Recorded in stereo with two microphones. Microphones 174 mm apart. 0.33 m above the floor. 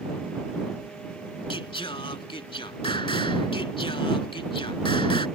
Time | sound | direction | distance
1.5 | singing | 30° left (ahead or behind) | ?